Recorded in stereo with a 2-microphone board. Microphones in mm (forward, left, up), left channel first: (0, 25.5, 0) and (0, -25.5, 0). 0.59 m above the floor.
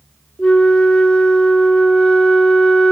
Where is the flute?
15° left (ahead or behind), 0.9 m.